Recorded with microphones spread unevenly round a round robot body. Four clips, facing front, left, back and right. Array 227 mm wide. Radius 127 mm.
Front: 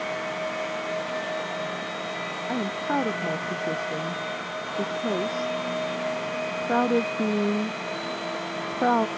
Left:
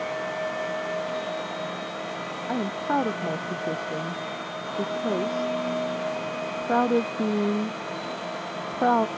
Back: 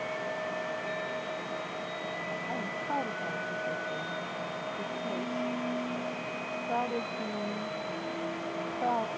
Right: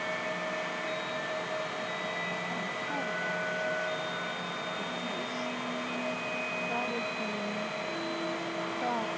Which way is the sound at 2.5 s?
45° left.